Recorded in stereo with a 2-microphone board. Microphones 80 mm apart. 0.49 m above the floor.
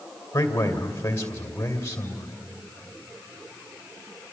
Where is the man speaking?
35° left (ahead or behind), 2.5 m.